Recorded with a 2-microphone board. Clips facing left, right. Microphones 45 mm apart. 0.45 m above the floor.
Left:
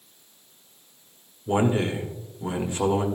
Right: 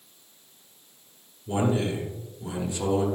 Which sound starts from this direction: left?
A man speaking, at 1.5 s.